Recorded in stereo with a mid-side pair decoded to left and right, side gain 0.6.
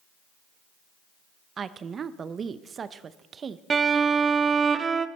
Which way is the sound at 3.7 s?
30° right.